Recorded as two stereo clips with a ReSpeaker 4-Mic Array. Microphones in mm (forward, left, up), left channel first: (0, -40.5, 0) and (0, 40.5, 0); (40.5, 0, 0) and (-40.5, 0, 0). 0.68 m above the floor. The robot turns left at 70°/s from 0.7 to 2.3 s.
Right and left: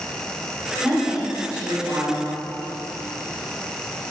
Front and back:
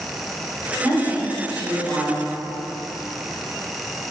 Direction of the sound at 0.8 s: 145° right.